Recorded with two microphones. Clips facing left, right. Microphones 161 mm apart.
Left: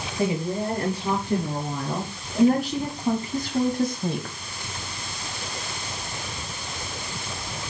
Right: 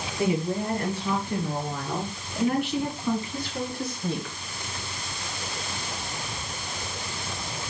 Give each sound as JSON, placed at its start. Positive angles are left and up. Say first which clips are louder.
{"t": 0.2, "sound": "a woman speaking", "louder": "left 1 dB", "side_deg": 30, "distance_m": 5.5}